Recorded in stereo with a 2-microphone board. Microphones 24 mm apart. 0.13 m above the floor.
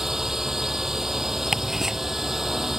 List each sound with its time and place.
0.0 s a drone: 20° right (ahead or behind)
1.5 s ticking: 15° right (ahead or behind)